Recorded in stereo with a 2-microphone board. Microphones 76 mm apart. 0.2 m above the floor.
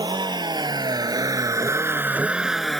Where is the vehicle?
75° right (ahead or behind); by 2.8 s 5° left (ahead or behind).